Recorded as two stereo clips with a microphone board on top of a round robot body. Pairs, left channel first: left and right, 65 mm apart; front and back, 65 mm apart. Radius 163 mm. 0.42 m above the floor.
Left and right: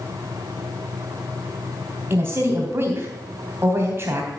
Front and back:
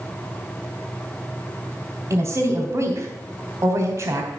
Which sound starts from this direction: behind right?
A woman speaking, at 2.1 s.